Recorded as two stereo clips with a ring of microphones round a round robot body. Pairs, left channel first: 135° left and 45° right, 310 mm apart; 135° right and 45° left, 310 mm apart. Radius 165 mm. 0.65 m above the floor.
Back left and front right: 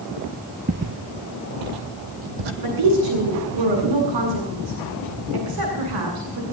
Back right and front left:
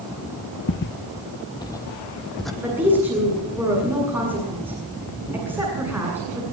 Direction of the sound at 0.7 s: 100° right.